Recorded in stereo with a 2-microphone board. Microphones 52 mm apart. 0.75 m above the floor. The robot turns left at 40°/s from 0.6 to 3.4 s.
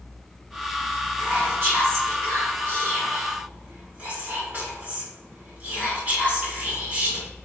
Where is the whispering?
50° right, 2.0 m; by 7.3 s 135° right, 2.0 m.